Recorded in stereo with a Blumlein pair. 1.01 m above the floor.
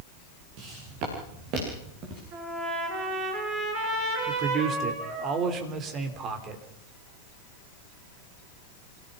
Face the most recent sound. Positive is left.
turn(degrees=-30)